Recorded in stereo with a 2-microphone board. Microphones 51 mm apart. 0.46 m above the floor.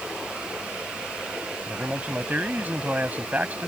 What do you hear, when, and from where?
1.7 s a man speaking: 30° right (ahead or behind)